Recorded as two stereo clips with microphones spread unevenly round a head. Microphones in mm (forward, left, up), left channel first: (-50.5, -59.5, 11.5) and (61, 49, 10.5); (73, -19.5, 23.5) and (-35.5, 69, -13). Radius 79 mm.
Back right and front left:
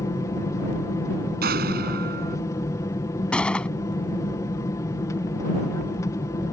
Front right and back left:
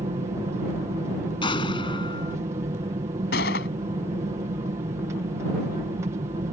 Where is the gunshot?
50° right.